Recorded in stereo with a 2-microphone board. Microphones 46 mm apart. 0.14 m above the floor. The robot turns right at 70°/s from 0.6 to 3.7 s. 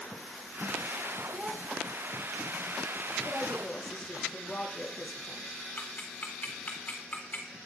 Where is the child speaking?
30° right (ahead or behind), 1.1 m; by 1.6 s 25° right (ahead or behind), 1.1 m.